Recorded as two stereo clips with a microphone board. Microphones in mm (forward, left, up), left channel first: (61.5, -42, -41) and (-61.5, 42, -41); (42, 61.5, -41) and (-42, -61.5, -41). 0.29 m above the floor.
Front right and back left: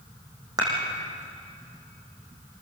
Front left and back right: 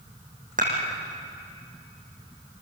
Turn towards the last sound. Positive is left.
turn(degrees=-150)